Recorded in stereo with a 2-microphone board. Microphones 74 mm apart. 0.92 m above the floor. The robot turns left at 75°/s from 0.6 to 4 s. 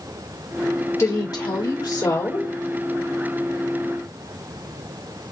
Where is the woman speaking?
140° left, 4 m; by 2.5 s 25° left, 4 m.